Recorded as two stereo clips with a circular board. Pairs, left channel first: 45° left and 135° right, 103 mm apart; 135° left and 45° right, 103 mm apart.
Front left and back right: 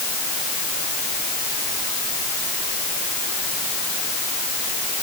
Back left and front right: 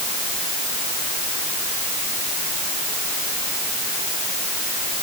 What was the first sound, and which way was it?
Only background noise.